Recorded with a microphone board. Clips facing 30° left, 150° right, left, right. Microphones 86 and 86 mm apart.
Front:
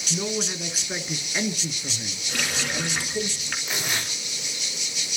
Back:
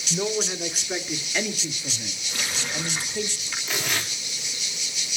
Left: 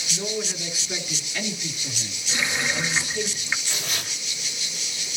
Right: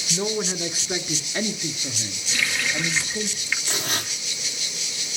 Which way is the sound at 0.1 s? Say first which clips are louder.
Back 2 dB, right 4 dB; 80° right.